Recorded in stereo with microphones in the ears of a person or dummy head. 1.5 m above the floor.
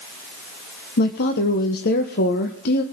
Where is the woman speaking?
55° left (ahead or behind), 1.1 m.